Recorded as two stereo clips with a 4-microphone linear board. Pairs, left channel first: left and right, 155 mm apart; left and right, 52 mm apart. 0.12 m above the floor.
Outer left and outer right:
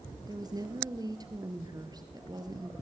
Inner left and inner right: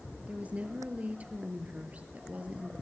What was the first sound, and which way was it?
A woman speaking, 25° right (ahead or behind).